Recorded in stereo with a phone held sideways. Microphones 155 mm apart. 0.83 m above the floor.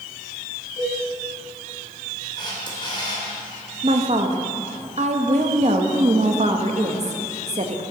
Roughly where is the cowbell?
Left.